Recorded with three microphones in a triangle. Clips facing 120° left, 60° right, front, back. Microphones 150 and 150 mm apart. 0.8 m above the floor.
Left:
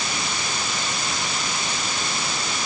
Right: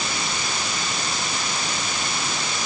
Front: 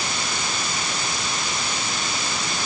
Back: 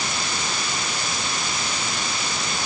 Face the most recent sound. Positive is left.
No sound to turn to.